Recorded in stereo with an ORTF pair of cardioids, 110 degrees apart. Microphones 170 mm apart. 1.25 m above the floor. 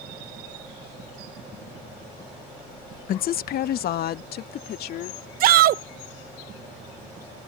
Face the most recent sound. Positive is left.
turn(degrees=-60)